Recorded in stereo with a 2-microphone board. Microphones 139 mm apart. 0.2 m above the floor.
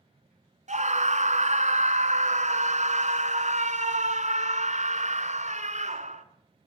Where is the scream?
55° right (ahead or behind), 1.7 m.